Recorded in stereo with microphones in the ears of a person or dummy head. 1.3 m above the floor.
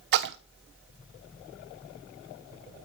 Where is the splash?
60° right (ahead or behind), 0.6 m.